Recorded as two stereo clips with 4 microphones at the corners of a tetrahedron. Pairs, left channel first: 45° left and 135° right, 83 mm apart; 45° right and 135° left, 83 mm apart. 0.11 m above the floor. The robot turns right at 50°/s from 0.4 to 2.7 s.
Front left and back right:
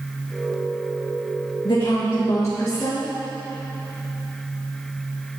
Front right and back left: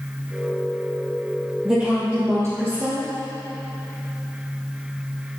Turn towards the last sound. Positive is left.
turn(degrees=105)